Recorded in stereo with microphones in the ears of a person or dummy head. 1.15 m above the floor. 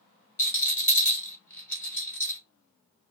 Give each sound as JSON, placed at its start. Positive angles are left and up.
{"t": 0.4, "sound": "a rattle", "side_deg": 15, "distance_m": 1.2}